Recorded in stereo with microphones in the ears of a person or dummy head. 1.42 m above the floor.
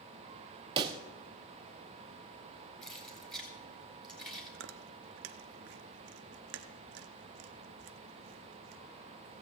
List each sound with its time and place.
0.8 s a pop: 25° right (ahead or behind), 0.9 m
2.8 s keys jangling: centre (ahead or behind), 3 m
4.5 s chewing: 65° right (ahead or behind), 0.7 m